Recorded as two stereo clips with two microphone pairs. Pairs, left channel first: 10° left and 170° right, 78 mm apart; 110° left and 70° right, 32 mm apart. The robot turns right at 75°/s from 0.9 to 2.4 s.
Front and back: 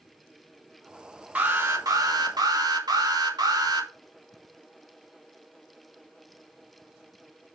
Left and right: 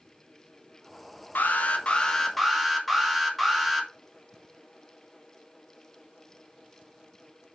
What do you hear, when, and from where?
1.4 s an alarm: 125° left, 2 m; by 3.9 s 155° right, 2 m